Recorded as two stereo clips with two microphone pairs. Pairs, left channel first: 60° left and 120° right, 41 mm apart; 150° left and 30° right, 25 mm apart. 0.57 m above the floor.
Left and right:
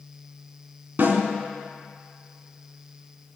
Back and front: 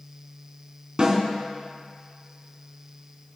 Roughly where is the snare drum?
Right.